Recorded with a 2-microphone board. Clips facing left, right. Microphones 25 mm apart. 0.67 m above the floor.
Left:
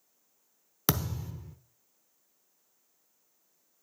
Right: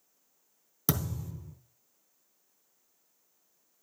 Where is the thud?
40° left (ahead or behind), 0.7 m.